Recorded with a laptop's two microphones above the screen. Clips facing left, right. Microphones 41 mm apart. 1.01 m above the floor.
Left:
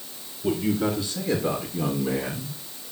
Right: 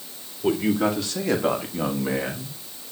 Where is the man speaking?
75° right (ahead or behind), 2 m; by 2.6 s 25° right (ahead or behind), 1.5 m.